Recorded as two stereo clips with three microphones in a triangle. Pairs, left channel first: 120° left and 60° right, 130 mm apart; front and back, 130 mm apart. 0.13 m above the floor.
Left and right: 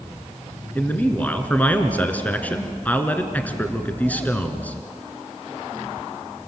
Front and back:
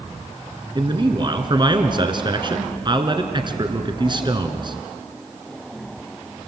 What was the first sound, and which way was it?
A man speaking, 170° right.